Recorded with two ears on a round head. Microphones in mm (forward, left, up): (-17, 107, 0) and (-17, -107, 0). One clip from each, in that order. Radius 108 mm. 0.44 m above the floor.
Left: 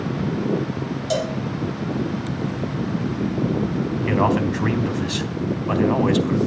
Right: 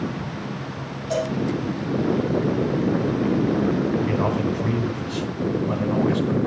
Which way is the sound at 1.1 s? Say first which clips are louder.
Left 1 dB; 60° left (ahead or behind).